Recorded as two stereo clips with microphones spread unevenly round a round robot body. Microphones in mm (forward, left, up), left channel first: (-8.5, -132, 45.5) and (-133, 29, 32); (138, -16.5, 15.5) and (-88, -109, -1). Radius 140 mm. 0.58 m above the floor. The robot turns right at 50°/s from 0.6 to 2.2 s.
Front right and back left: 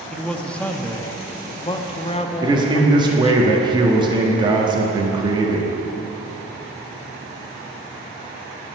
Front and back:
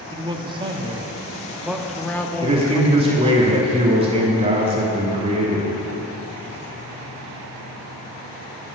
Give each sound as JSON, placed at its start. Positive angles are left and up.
{"t": 0.1, "sound": "a man speaking", "azimuth_deg": -140, "distance_m": 0.7}
{"t": 2.4, "sound": "a man speaking", "azimuth_deg": 165, "distance_m": 1.3}